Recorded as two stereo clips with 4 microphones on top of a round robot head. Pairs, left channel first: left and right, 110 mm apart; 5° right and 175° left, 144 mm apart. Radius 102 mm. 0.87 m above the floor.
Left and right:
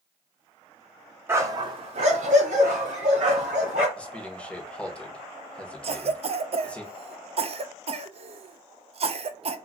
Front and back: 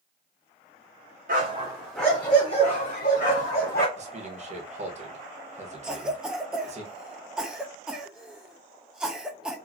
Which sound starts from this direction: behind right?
A dog barking, at 1.3 s.